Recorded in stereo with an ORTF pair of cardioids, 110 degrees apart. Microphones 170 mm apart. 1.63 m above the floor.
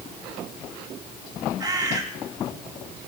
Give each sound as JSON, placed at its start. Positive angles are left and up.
{"t": 1.6, "sound": "a bird", "azimuth_deg": -25, "distance_m": 3.5}